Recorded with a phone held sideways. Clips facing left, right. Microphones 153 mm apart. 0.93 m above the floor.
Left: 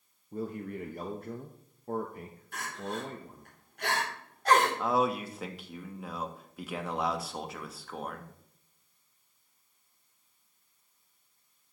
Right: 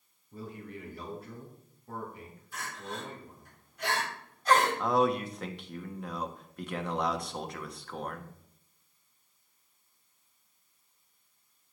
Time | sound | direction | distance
0.3 | a man speaking | 50° left (ahead or behind) | 0.9 m
2.5 | crying | 65° left (ahead or behind) | 3 m
4.8 | a man speaking | 5° left (ahead or behind) | 1.1 m